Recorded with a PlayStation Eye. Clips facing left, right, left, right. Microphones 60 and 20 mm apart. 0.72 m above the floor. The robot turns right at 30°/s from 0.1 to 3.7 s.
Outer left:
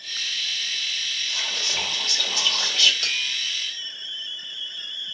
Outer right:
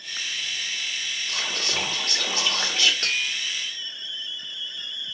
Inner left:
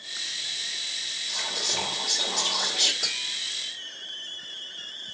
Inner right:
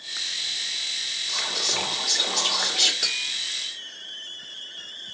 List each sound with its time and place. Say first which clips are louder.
1.3 s whispering: outer right 3 dB, inner right 3 dB; 80° right, 1.4 m; by 2.9 s 30° right, 1.4 m
3.0 s tapping: outer right 2 dB, inner right 3 dB; 45° right (ahead or behind), 1.7 m; by 3.3 s 40° right (ahead or behind), 1.7 m